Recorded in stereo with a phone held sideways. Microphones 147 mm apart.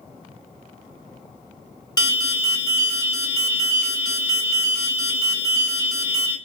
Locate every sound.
2.0 s an alarm: 25° left (ahead or behind), 1.2 m